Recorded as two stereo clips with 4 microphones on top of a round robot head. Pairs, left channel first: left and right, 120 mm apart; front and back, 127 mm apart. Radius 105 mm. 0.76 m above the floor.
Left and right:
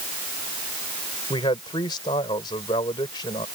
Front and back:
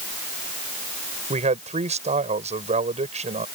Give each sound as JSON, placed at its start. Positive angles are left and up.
{"t": 1.3, "sound": "a man speaking", "azimuth_deg": 150}